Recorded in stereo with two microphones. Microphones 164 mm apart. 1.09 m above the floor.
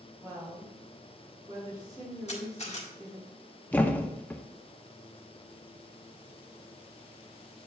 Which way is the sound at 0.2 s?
25° right (ahead or behind).